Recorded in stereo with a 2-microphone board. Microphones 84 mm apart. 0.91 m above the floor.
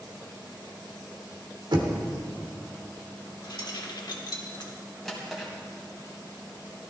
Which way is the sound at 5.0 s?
5° left (ahead or behind).